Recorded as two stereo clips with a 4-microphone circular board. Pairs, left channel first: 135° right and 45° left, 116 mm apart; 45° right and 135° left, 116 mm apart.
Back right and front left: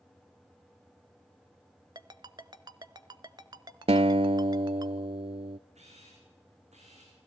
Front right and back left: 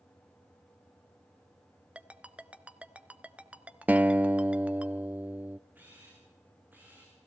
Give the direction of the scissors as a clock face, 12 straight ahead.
I don't hear scissors.